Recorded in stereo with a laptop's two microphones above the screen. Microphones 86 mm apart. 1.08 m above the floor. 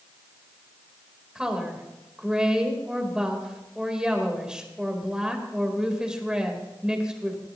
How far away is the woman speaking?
About 4 m.